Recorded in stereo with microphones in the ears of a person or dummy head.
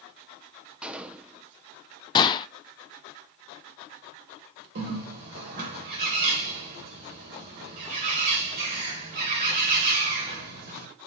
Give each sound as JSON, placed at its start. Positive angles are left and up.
{"t": 0.8, "sound": "a gunshot", "side_deg": -5, "distance_m": 0.8}
{"t": 2.1, "sound": "a gunshot", "side_deg": 25, "distance_m": 0.6}
{"t": 4.8, "sound": "a bird", "side_deg": -55, "distance_m": 3.0}